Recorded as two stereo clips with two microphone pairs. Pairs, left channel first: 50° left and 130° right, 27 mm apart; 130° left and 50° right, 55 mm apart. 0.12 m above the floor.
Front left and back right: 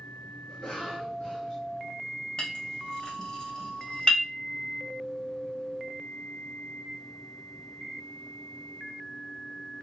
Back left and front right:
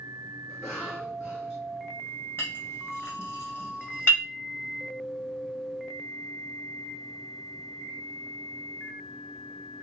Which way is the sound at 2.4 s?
95° left.